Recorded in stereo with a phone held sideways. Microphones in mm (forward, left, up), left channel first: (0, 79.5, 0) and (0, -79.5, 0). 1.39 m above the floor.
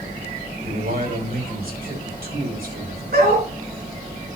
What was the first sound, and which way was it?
A man speaking, 70° right (ahead or behind).